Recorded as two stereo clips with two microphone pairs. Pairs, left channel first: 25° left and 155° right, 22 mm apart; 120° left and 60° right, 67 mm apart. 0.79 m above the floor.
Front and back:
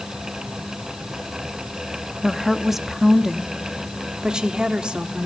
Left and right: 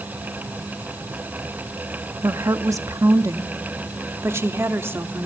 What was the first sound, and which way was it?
A woman speaking, 65° right.